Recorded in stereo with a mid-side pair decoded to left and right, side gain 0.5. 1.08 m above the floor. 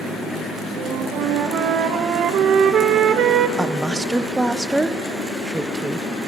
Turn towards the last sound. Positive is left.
turn(degrees=-10)